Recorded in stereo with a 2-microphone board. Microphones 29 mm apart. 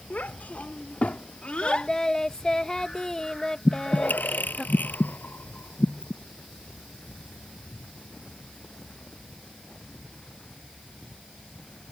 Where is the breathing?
80° left.